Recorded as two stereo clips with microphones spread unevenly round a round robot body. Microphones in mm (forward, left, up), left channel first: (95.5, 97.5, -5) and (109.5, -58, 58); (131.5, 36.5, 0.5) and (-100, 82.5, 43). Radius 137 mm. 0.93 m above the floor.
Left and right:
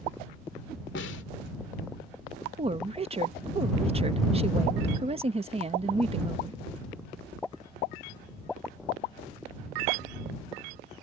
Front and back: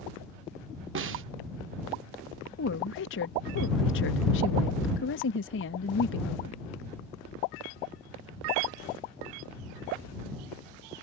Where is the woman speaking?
25° right.